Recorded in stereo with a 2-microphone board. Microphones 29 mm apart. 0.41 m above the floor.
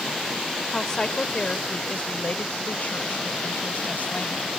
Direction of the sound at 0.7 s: 20° left (ahead or behind).